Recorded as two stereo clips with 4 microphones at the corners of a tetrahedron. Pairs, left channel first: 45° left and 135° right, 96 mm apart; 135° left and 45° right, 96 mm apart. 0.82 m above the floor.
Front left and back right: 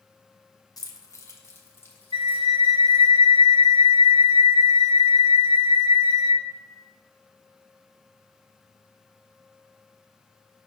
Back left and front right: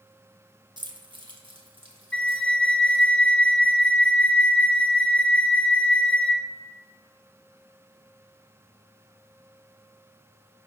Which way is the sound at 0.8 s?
5° right.